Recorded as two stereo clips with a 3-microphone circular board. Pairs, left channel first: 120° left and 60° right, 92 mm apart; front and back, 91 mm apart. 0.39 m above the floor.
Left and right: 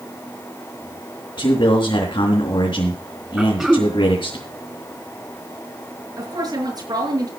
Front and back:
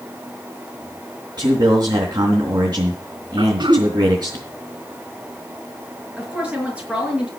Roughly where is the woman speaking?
Right.